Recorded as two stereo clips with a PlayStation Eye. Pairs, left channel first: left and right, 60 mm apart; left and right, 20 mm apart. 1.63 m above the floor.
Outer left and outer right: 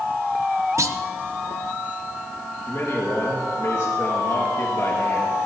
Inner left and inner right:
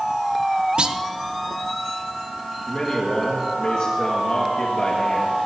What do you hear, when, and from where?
0.8 s a clunk: 55° right (ahead or behind), 0.8 m
2.7 s a man speaking: 50° left (ahead or behind), 1.9 m